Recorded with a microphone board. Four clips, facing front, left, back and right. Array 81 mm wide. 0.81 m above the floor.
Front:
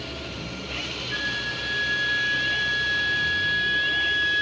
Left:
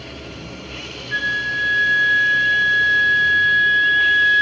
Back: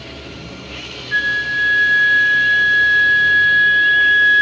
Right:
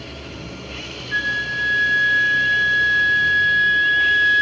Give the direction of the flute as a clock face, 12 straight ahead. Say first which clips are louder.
Left 1 dB, back 13 dB; 7 o'clock.